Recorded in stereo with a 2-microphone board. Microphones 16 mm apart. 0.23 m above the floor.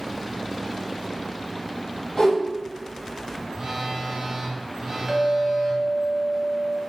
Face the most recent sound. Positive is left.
turn(degrees=-20)  # may be behind; listen again after turning